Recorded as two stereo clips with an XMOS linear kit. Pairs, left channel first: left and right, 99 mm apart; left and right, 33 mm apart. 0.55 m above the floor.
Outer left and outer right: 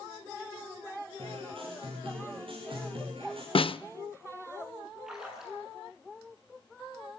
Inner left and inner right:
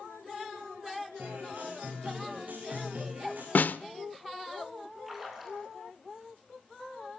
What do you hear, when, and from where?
1.2 s a guitar: 65° right (ahead or behind), 8.5 m
3.5 s a snare drum: 65° left (ahead or behind), 0.5 m
5.1 s a splash: 5° right (ahead or behind), 7.5 m